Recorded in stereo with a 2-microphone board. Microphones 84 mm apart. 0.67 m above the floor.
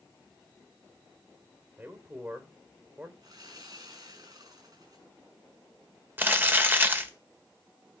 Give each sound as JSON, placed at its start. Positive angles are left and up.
{"t": 1.8, "sound": "a man speaking", "side_deg": -25, "distance_m": 2.5}
{"t": 3.2, "sound": "sawing", "side_deg": -50, "distance_m": 6.5}
{"t": 6.2, "sound": "crumpling", "side_deg": -25, "distance_m": 1.4}